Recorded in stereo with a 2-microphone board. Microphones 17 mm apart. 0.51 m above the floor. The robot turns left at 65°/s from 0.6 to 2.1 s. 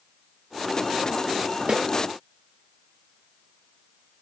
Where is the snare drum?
70° right (ahead or behind), 0.7 m; by 1.9 s 55° right (ahead or behind), 0.7 m.